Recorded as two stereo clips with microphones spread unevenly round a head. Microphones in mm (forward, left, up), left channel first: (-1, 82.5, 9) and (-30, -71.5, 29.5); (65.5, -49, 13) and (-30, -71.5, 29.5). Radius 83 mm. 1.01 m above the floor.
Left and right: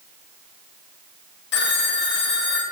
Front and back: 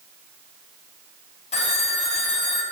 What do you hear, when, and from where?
1.5 s a phone ringing: 55° left, 3.5 m